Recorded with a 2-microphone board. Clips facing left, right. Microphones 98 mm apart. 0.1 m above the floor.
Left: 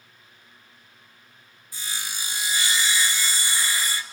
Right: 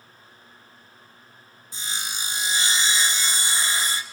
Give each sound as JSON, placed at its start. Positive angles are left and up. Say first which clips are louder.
{"t": 1.7, "sound": "sawing", "louder": "right 2 dB", "side_deg": -25, "distance_m": 0.5}